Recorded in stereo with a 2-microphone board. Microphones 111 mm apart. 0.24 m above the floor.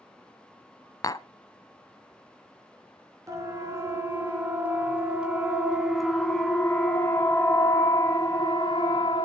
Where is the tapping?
30° left (ahead or behind), 0.5 m.